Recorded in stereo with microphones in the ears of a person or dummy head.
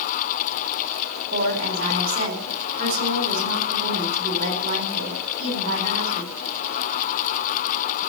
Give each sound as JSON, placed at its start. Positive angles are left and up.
{"t": 1.3, "sound": "a woman speaking", "side_deg": -40, "distance_m": 4.0}